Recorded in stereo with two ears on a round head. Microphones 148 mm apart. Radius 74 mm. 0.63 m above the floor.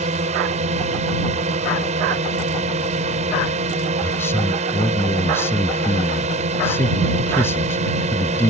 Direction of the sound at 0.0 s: 45° right (ahead or behind).